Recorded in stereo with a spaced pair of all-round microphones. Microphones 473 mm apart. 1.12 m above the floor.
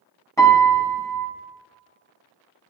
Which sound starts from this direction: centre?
A piano, at 0.4 s.